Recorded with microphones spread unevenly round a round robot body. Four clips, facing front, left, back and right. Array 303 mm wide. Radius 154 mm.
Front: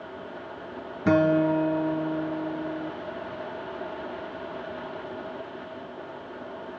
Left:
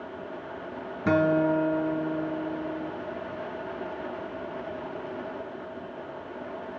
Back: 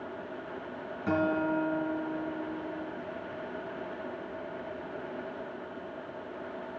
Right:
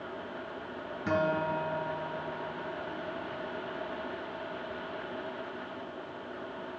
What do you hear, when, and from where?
1.1 s a guitar: 25° left, 1.7 m